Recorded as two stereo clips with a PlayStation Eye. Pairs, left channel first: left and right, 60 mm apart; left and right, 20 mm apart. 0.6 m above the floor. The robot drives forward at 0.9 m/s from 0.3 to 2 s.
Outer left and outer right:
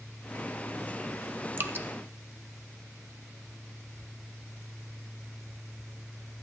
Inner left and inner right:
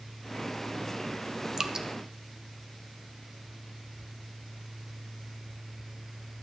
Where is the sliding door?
I don't hear a sliding door.